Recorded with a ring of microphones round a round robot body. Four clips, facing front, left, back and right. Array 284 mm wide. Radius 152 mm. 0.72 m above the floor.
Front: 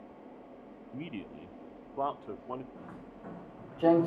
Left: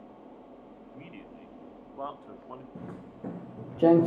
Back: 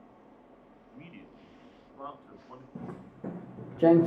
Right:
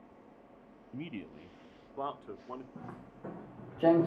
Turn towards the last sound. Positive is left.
turn(degrees=115)